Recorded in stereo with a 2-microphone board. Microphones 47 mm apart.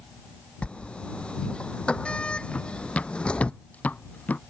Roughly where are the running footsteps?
Left.